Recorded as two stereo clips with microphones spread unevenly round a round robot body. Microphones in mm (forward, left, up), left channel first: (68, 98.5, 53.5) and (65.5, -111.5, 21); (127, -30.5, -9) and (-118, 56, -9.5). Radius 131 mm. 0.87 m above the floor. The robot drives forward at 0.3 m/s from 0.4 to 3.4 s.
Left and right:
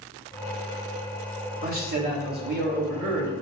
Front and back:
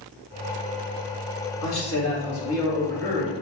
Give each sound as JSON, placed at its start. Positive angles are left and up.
{"t": 1.6, "sound": "a man speaking", "azimuth_deg": -45, "distance_m": 1.9}